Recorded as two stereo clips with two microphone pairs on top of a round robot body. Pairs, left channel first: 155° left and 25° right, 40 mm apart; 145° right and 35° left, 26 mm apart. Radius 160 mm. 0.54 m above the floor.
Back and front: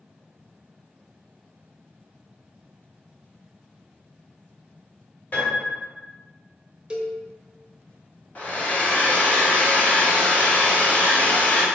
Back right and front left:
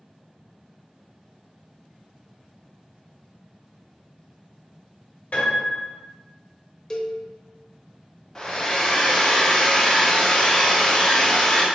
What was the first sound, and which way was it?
A piano, 165° right.